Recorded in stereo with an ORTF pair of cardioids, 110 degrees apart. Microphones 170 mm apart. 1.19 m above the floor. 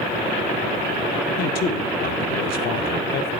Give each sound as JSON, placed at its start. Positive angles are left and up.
{"t": 1.4, "sound": "a man speaking", "azimuth_deg": 65, "distance_m": 0.9}